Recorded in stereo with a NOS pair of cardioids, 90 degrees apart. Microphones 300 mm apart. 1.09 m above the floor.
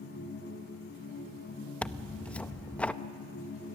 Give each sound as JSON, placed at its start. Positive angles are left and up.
{"t": 0.0, "sound": "a machine running", "azimuth_deg": 35, "distance_m": 5.0}
{"t": 1.8, "sound": "tearing paper", "azimuth_deg": 5, "distance_m": 0.6}